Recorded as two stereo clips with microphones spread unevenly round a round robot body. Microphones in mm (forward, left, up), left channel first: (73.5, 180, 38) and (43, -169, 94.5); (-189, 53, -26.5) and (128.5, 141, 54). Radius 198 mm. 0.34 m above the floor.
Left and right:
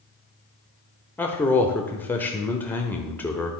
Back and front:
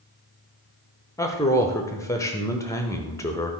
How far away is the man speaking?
About 0.9 m.